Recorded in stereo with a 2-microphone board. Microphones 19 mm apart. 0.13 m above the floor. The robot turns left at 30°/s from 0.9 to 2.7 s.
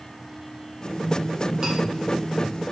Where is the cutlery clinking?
30° right (ahead or behind), 2.5 m.